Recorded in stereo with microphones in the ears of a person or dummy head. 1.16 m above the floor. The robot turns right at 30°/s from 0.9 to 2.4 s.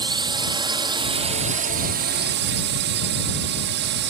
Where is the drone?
150° right; by 4.1 s 105° right.